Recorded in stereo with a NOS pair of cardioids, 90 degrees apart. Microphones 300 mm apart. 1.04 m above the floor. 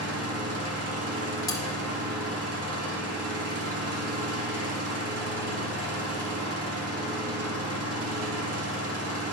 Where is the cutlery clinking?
15° left, 1.6 m.